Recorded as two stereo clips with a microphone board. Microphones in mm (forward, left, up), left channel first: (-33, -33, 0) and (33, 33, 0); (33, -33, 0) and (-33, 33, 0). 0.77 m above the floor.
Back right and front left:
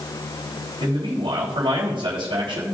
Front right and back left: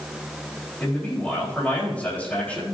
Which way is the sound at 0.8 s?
30° left.